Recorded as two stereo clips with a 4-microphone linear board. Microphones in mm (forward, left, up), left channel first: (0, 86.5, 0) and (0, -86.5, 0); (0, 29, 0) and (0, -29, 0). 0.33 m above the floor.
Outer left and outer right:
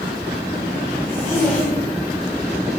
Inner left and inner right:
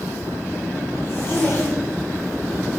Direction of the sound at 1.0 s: 50° left (ahead or behind).